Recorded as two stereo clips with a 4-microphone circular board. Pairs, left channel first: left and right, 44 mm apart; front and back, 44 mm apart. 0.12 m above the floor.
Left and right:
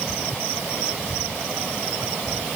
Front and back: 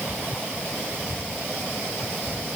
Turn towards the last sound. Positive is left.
No sound to turn to.